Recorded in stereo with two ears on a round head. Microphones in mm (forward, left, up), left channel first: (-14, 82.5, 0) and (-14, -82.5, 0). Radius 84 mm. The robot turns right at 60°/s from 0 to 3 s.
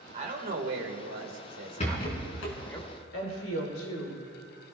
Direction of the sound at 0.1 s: 145° right.